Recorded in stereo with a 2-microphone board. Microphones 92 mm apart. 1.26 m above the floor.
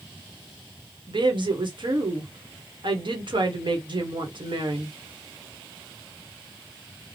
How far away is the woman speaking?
About 1.2 m.